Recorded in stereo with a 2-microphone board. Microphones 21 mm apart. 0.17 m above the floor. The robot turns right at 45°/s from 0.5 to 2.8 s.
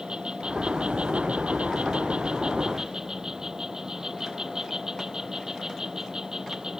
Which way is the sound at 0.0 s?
130° right.